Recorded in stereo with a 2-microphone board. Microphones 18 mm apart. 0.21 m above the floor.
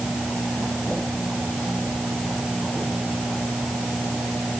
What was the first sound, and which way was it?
Only background noise.